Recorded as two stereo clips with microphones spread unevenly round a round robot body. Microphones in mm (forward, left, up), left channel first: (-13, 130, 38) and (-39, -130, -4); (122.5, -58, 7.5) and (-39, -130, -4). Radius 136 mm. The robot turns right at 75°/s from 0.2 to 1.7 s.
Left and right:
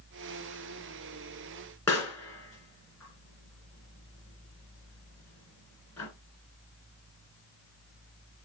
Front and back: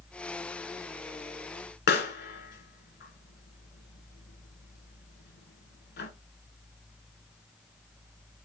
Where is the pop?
Straight ahead, 1.9 m.